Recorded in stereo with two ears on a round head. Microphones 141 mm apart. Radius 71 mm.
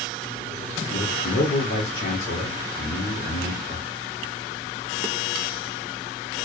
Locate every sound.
0.9 s a man speaking: 55° left (ahead or behind), 1.0 m